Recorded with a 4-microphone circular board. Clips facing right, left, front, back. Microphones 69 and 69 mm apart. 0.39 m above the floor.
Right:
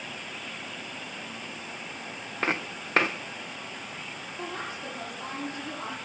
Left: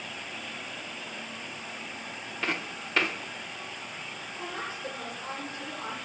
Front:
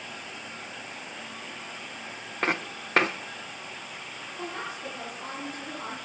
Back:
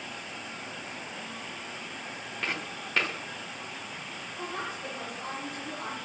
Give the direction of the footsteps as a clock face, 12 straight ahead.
1 o'clock.